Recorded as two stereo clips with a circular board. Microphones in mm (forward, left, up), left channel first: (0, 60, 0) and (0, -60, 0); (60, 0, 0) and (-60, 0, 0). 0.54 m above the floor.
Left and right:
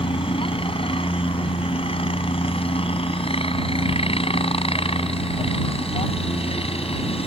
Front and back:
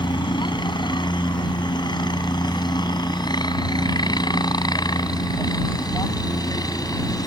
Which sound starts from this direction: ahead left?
A helicopter, at 0.0 s.